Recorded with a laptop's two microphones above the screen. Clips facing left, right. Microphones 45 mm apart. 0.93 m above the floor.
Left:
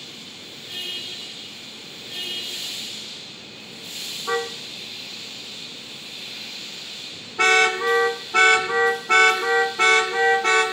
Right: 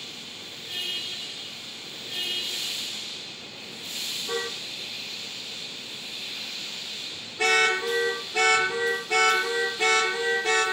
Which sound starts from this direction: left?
A car horn, at 4.3 s.